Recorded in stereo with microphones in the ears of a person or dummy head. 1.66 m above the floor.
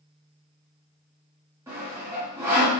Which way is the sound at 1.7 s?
15° right (ahead or behind).